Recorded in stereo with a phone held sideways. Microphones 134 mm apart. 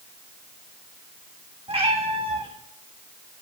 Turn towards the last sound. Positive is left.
turn(degrees=-45)  # may be behind; listen again after turning